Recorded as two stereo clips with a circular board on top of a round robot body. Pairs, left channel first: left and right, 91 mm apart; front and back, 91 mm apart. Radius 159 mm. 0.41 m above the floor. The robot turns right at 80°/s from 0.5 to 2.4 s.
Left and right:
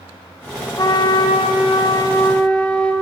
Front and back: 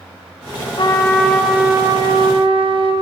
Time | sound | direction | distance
0.8 | a trumpet | 40° left | 3 m